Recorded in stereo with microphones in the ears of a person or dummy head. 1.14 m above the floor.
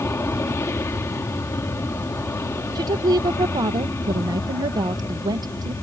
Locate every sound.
0.0 s an aircraft: 10° left (ahead or behind)
2.8 s a woman speaking: 25° right (ahead or behind)